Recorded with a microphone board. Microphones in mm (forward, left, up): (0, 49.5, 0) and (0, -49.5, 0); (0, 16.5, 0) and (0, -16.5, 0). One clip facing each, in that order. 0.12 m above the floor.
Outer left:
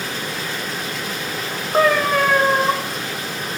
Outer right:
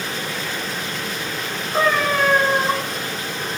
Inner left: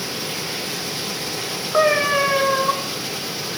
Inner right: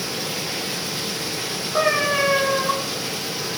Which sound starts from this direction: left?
A cat meowing, at 1.7 s.